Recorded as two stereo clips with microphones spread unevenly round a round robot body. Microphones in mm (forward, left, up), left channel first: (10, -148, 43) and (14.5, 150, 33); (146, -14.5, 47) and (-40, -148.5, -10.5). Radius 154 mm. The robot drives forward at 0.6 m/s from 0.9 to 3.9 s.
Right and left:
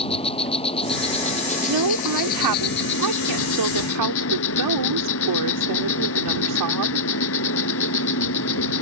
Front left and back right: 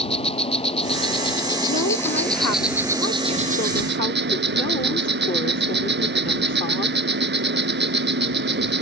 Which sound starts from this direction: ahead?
An insect, at 0.0 s.